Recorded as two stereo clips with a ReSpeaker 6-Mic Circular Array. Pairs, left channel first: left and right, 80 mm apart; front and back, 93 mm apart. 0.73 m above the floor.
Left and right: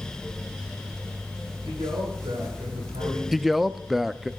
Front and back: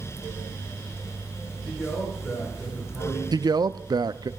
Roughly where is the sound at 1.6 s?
Right.